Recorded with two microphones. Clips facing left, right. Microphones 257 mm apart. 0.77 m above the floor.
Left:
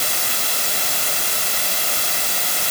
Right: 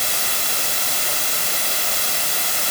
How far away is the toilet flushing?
No toilet flushing in this recording.